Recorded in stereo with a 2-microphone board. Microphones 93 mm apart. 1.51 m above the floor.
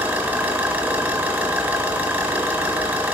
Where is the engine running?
15° right (ahead or behind), 1.3 m.